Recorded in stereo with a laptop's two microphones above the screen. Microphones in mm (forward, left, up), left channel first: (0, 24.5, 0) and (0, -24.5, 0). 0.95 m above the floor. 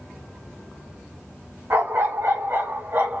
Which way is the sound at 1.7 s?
60° right (ahead or behind).